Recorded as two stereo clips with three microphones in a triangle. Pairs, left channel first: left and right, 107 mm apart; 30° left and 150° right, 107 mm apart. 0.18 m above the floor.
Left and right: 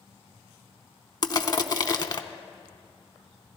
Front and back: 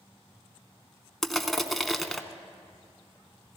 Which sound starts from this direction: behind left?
Crushing, at 1.2 s.